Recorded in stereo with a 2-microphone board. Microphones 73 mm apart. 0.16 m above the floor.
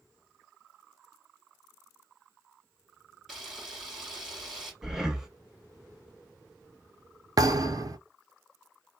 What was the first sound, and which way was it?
A camera shutter, 5° right (ahead or behind).